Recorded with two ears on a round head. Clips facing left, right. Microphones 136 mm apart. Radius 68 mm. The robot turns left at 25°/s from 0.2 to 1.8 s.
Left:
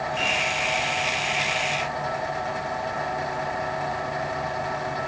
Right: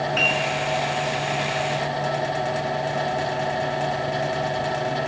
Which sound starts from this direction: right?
A piano, at 0.2 s.